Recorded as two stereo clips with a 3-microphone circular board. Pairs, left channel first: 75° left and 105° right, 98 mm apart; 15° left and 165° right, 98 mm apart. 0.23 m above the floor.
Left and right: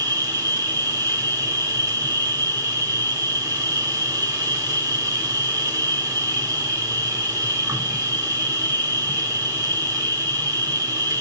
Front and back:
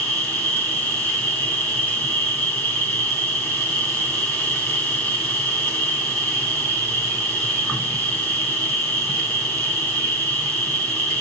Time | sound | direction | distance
0.0 | an insect | 50° right | 3.5 m